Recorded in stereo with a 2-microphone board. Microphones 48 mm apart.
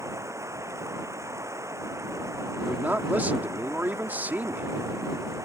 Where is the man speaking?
35° right (ahead or behind).